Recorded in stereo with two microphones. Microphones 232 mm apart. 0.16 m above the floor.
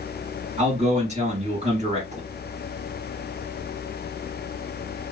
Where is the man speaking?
30° right (ahead or behind), 2.5 m.